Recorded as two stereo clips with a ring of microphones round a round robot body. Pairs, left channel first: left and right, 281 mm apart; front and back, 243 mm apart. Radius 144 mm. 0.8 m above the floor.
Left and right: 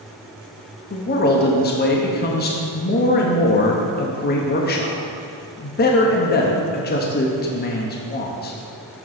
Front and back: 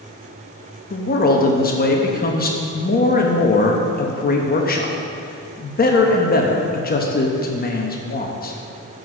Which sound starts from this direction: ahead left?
A man speaking, at 0.9 s.